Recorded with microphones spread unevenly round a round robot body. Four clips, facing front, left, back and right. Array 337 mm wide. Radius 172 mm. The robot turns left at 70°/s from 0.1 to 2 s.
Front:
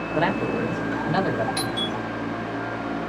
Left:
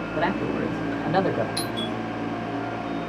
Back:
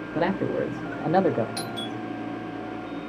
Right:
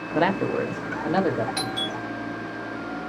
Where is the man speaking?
90° right, 0.8 m; by 1.5 s 175° left, 0.8 m.